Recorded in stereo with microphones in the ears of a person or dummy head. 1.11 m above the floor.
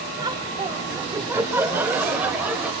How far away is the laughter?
About 2 m.